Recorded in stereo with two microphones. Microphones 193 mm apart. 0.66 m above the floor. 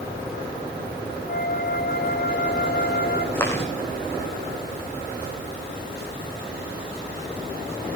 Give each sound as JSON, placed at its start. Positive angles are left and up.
{"t": 1.3, "sound": "a flute", "side_deg": 60, "distance_m": 2.0}
{"t": 3.4, "sound": "chewing", "side_deg": 15, "distance_m": 7.5}